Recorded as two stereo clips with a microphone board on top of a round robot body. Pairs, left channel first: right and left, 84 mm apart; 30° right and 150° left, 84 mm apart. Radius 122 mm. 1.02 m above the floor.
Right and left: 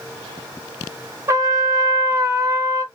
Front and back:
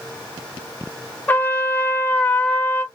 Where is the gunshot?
I don't hear a gunshot.